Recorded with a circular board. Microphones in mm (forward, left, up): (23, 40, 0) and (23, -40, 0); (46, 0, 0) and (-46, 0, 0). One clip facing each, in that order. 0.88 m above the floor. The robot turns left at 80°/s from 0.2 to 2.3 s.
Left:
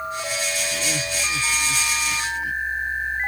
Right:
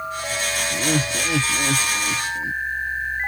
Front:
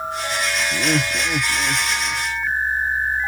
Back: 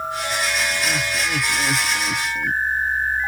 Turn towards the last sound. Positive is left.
turn(degrees=-150)